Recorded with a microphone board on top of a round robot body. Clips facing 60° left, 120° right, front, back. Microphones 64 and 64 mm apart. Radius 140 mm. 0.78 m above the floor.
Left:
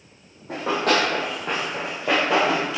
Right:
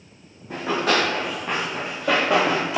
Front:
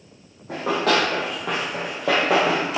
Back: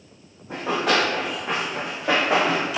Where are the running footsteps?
20° left, 1.7 m; by 2.8 s 55° right, 0.9 m.